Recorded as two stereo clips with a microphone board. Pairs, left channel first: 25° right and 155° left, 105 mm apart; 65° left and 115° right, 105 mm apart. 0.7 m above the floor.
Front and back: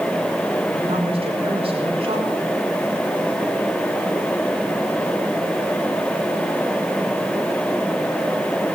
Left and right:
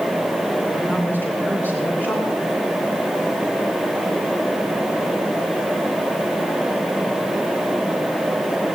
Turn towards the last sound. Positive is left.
turn(degrees=135)